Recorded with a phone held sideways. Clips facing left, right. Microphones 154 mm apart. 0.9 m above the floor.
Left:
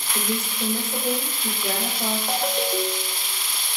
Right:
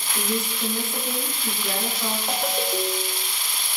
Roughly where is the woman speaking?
Left.